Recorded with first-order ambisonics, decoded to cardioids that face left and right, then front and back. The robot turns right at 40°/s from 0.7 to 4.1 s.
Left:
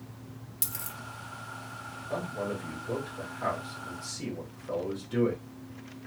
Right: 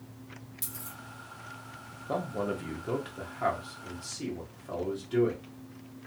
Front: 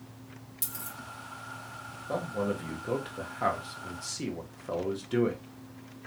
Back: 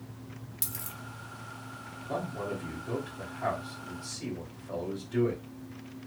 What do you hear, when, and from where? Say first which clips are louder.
0.6 s a dropped coin: left 6 dB, front 1 dB; 110° left, 0.6 m; by 1.0 s 120° left, 0.6 m
2.1 s a man speaking: right 2 dB, front 3 dB; 80° right, 1.2 m; by 5.4 s straight ahead, 1.2 m